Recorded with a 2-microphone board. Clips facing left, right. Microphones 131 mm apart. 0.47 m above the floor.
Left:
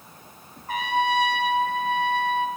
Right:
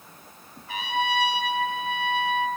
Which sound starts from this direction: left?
A trumpet, at 0.7 s.